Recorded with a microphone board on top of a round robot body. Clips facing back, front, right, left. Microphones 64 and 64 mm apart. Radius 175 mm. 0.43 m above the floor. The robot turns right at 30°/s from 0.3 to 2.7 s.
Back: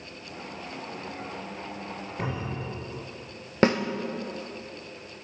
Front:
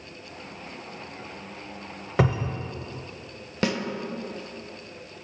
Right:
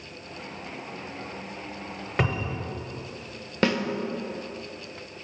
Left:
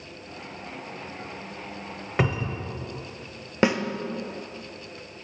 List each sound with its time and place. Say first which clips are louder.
2.2 s a cupboard door: front 9 dB, left 1 dB; 10° left, 0.6 m; by 2.7 s 20° left, 0.6 m
3.6 s a snare drum: back 5 dB, left 2 dB; 155° left, 0.7 m